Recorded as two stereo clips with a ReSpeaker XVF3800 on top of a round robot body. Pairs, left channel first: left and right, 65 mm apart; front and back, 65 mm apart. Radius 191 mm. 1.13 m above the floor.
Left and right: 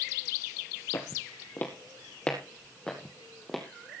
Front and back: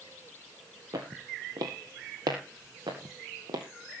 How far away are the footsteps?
About 1.7 m.